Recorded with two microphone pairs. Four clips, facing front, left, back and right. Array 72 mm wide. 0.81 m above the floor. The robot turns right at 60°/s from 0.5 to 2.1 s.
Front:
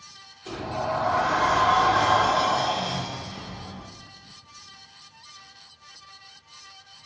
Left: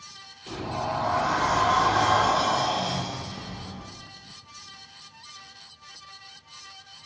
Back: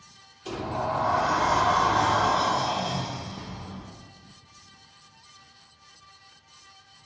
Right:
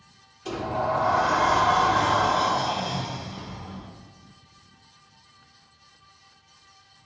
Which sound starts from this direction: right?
A sliding door, at 0.5 s.